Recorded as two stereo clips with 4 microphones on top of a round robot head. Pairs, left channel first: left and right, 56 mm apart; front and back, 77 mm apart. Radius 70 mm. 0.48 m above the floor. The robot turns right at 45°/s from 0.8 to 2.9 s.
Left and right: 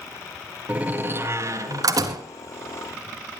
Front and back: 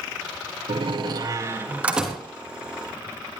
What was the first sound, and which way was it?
A door slam, 155° right.